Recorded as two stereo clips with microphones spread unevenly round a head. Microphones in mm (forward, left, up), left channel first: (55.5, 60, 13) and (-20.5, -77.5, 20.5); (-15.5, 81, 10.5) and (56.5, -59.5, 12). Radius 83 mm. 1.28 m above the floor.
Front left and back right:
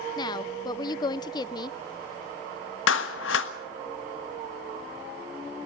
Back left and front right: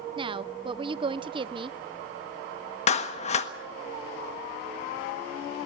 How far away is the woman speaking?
About 0.6 m.